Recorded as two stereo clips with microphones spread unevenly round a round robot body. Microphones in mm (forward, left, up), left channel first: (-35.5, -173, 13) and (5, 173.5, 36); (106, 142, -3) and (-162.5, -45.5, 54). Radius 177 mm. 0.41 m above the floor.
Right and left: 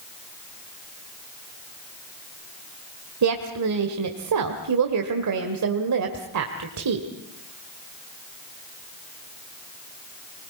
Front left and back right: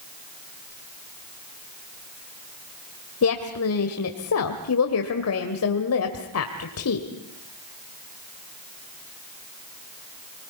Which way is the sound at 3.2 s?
50° left.